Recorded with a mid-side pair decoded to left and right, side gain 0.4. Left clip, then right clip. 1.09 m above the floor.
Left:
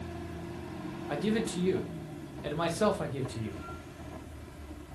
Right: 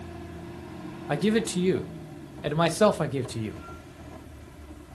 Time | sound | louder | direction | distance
1.1 | a man speaking | right 6 dB | 55° right | 0.7 m